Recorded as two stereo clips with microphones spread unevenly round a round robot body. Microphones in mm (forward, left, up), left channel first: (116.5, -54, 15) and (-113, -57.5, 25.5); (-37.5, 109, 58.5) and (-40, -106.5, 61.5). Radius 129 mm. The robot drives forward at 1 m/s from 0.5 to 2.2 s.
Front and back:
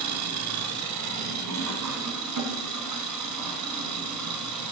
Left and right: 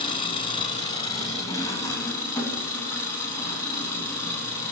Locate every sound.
0.0 s an engine running: 155° left, 1.7 m; by 4.7 s 170° left, 3.5 m